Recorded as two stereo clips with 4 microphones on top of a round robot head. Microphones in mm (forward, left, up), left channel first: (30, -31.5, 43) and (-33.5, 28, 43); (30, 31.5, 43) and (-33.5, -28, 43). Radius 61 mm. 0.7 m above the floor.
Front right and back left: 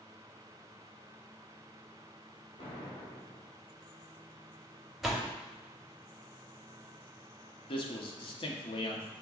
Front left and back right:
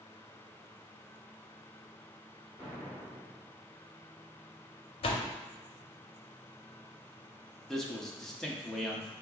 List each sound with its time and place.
2.6 s an explosion: 30° right, 1.5 m
5.0 s a door slam: 50° left, 0.8 m
7.7 s a man speaking: 40° right, 1.0 m